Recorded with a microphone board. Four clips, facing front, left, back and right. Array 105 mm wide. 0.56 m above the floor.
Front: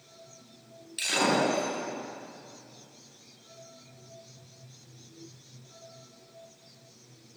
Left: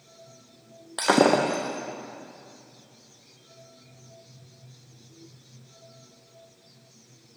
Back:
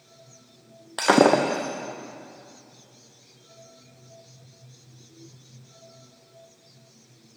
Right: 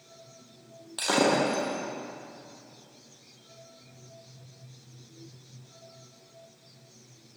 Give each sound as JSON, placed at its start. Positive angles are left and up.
{"t": 1.0, "sound": "breaking glass", "azimuth_deg": 150, "distance_m": 4.0}